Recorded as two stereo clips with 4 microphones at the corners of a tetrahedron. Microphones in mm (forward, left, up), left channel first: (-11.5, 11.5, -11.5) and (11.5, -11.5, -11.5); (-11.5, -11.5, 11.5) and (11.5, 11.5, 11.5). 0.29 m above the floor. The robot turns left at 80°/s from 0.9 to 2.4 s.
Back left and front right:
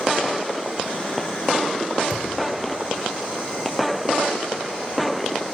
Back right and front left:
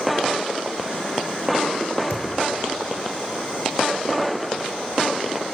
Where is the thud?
90° right, 3 m; by 2.3 s 105° right, 3 m.